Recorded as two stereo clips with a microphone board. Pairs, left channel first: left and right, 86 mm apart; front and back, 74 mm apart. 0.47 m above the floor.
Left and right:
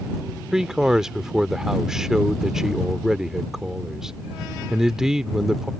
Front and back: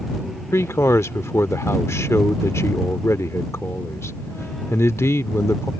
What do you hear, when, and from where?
0.5 s a man speaking: 10° right